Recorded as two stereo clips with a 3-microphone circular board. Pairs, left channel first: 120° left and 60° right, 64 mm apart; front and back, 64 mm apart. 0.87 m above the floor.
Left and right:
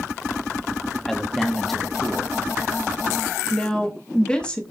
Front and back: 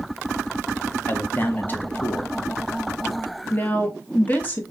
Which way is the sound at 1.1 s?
35° left.